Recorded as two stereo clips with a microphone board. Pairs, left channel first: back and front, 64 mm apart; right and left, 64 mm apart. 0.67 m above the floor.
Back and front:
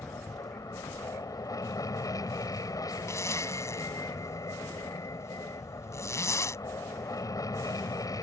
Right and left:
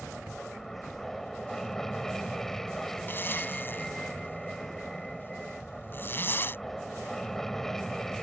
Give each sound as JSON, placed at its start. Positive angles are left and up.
{"t": 0.0, "sound": "an aircraft", "azimuth_deg": -170}
{"t": 3.1, "sound": "a zipper", "azimuth_deg": -145}